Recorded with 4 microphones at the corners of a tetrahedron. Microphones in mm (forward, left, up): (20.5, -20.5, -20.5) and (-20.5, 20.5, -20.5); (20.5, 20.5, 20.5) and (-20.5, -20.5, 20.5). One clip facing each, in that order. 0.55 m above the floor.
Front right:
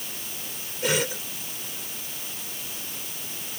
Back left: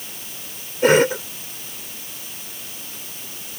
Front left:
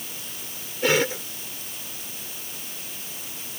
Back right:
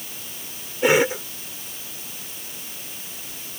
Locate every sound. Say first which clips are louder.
0.8 s a cough: back left 12 dB, back right 4 dB; 160° left